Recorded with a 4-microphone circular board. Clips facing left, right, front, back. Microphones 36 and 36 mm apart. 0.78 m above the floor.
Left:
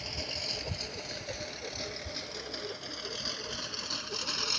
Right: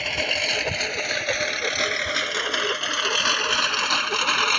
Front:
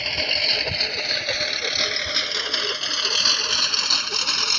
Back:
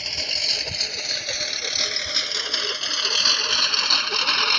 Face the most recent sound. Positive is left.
turn(degrees=-115)